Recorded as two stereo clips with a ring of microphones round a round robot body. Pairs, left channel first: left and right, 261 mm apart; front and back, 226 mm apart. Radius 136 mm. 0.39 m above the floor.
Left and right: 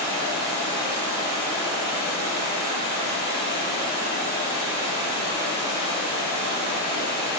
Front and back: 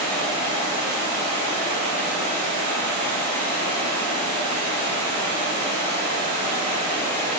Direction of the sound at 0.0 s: 155° right.